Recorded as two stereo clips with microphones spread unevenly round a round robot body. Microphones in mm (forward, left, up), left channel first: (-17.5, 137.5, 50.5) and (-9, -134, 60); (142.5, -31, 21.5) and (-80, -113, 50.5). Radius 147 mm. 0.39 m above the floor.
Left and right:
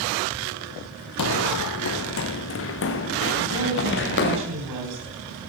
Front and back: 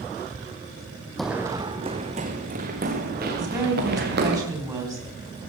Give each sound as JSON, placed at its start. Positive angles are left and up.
{"t": 1.2, "sound": "running footsteps", "azimuth_deg": 115, "distance_m": 0.7}
{"t": 3.4, "sound": "a woman speaking", "azimuth_deg": -85, "distance_m": 3.5}